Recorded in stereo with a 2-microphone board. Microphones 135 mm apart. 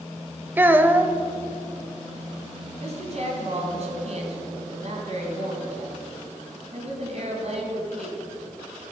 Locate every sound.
0.6 s a child speaking: 15° right (ahead or behind), 0.6 m
2.8 s a woman speaking: 55° right (ahead or behind), 3 m